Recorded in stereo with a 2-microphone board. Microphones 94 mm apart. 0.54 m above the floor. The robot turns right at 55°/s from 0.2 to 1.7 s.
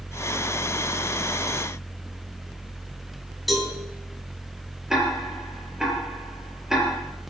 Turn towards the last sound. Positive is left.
turn(degrees=-5)  # may be behind; listen again after turning